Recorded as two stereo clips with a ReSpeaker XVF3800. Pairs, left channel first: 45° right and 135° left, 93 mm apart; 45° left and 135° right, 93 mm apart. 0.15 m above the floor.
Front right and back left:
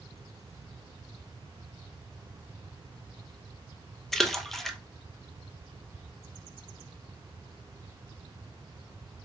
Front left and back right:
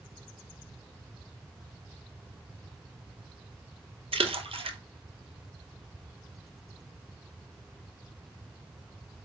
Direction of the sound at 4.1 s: 135° right.